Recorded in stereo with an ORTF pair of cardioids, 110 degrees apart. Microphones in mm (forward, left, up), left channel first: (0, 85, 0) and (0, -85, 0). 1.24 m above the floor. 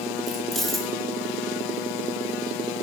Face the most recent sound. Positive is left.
turn(degrees=0)